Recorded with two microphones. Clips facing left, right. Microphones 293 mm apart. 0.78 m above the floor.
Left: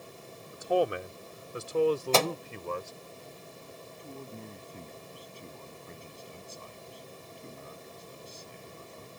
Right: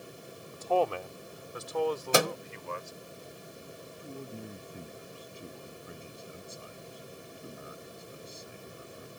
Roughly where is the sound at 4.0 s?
Centre.